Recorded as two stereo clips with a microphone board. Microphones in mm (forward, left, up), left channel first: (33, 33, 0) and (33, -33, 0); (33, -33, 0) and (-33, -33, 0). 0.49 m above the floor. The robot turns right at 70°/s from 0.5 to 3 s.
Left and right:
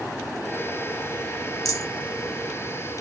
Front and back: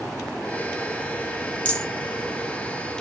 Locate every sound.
1.6 s a rattle: 70° left, 0.9 m; by 1.9 s 85° left, 0.9 m